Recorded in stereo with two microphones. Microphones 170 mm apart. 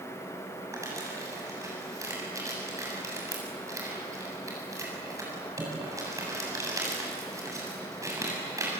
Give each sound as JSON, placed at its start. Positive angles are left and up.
{"t": 0.7, "sound": "crumpling", "side_deg": -20, "distance_m": 7.0}